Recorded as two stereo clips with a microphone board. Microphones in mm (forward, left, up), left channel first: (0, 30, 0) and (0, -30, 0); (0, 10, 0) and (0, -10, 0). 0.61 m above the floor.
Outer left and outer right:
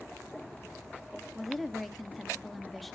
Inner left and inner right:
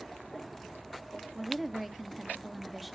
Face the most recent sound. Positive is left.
turn(degrees=0)  # may be behind; listen again after turning